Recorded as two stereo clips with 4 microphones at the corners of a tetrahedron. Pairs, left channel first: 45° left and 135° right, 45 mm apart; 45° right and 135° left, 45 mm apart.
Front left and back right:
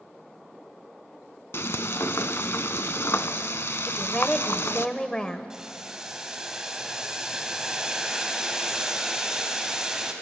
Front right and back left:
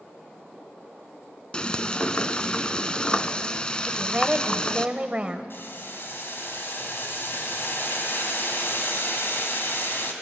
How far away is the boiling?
About 2 m.